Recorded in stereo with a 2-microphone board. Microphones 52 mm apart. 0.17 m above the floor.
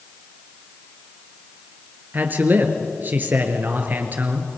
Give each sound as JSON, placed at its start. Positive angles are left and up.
{"t": 2.1, "sound": "a man speaking", "side_deg": -40, "distance_m": 2.5}